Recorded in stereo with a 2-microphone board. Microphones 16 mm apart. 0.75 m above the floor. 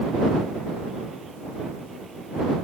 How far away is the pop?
I don't hear a pop.